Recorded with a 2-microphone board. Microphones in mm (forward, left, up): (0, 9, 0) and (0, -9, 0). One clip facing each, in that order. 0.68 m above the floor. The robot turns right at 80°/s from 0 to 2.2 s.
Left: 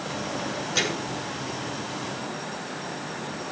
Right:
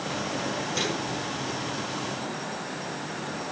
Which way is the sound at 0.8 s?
25° left.